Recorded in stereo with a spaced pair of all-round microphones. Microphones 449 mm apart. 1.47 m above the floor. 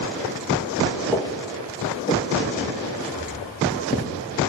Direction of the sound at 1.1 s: 10° left (ahead or behind).